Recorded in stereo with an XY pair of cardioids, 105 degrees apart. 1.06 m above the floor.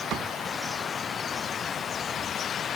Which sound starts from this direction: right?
A cupboard door, at 0.1 s.